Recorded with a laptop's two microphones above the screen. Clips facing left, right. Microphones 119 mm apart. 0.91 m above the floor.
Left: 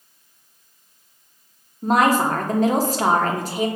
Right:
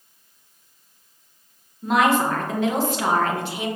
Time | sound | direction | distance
1.8 | a woman speaking | 40° left (ahead or behind) | 0.7 m